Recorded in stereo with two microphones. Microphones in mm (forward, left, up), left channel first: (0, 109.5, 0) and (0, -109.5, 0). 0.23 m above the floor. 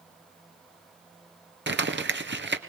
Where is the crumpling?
60° right (ahead or behind), 1.5 m.